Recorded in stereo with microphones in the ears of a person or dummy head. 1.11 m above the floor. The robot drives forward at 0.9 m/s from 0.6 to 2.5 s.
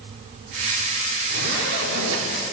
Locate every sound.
1.3 s a zipper: 60° right (ahead or behind), 3.5 m; by 2.3 s 75° right (ahead or behind), 3.5 m